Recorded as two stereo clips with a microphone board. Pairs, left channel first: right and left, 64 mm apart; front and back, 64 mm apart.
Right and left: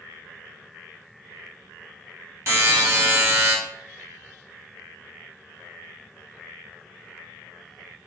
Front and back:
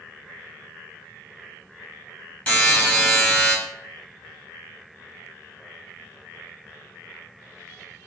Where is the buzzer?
60° left, 1.3 m.